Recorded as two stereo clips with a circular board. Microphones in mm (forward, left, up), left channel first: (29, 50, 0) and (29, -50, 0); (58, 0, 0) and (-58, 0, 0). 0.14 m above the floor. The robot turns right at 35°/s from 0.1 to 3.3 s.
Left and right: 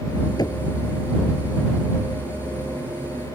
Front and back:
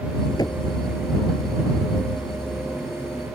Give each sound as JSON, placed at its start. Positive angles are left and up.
{"t": 0.4, "sound": "knocking", "azimuth_deg": 50}